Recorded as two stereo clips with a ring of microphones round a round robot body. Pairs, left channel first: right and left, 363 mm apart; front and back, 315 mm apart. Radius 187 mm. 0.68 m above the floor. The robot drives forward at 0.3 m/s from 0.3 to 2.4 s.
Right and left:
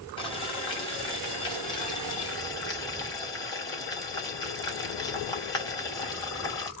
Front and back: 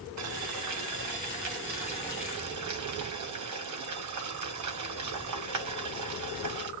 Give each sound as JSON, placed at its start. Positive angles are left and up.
{"t": 0.2, "sound": "boiling", "azimuth_deg": -165, "distance_m": 2.0}